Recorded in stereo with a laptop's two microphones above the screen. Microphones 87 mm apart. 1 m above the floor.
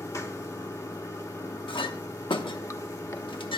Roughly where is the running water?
Left.